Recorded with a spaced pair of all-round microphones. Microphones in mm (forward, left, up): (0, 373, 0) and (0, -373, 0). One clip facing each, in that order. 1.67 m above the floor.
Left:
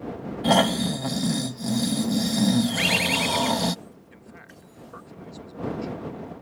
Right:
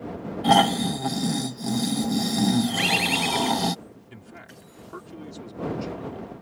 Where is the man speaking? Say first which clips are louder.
Right 2 dB; 90° right.